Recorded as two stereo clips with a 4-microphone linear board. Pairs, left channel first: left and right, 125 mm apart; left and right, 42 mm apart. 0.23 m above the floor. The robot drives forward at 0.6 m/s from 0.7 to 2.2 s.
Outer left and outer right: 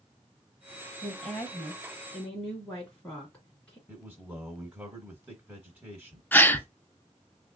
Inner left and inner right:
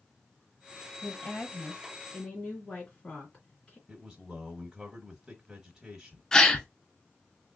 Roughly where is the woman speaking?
Centre.